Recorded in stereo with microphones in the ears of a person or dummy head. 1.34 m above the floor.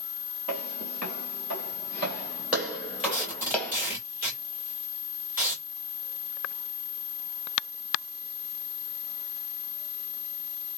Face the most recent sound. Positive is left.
turn(degrees=-10)  # may be behind; listen again after turning